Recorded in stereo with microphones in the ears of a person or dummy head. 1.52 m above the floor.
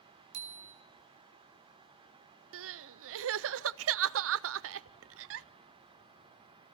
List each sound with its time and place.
0.3 s a bicycle bell: 65° right (ahead or behind), 2.5 m
2.5 s crying: 80° right, 0.6 m